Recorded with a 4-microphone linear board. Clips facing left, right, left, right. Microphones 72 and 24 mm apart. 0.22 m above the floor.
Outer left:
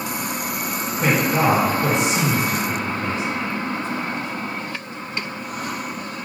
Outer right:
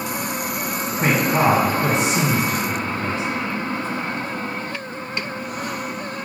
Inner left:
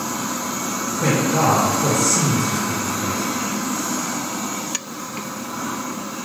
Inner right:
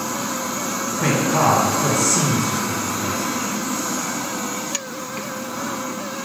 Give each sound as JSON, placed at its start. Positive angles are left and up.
{"t": 1.0, "sound": "a man speaking", "side_deg": -20, "distance_m": 1.4}